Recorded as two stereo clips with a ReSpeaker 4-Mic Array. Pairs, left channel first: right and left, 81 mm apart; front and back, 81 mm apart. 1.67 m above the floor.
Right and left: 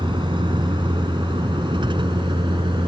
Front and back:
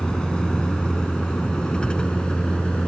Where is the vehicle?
80° left.